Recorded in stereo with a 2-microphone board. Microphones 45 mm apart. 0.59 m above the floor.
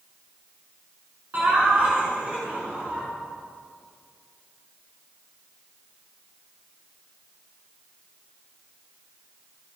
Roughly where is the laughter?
Right.